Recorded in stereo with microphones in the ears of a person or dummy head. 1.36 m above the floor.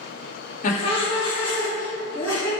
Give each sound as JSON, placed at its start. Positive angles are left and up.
{"t": 0.6, "sound": "laughter", "side_deg": 40, "distance_m": 0.6}